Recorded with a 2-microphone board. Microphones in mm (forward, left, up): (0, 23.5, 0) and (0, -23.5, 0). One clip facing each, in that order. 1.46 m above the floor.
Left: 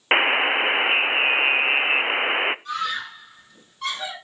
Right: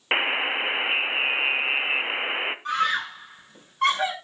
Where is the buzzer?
25° left (ahead or behind), 0.5 m.